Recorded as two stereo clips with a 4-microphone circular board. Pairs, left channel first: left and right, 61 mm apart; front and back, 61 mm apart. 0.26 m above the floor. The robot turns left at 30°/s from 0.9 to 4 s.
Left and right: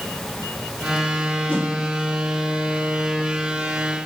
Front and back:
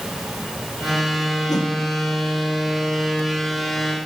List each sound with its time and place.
1.5 s a whoosh: 20° left, 4.5 m; by 1.7 s 15° left, 4.5 m